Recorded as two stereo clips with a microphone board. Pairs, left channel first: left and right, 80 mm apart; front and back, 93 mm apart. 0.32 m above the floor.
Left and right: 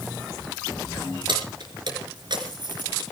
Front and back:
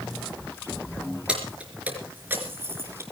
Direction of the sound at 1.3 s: 100° right.